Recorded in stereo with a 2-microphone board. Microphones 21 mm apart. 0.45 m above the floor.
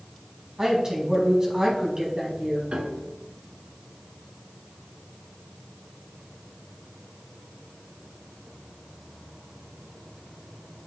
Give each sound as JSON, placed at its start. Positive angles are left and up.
{"t": 0.6, "sound": "a woman speaking", "side_deg": -35, "distance_m": 4.5}
{"t": 2.7, "sound": "a piano", "side_deg": -85, "distance_m": 1.3}